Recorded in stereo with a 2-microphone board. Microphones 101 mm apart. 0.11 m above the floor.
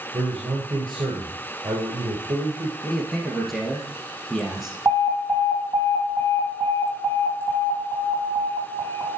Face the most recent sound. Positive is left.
turn(degrees=-20)  # may be behind; listen again after turning